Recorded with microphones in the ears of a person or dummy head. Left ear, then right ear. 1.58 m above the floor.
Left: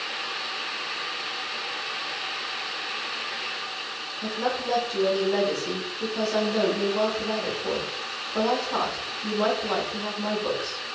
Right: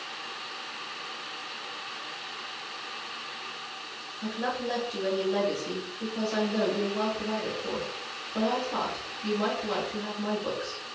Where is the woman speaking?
10° left (ahead or behind), 1.7 m.